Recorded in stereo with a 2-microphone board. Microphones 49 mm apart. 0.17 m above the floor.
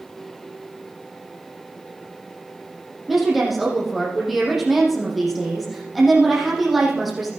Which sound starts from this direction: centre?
A woman speaking, at 3.1 s.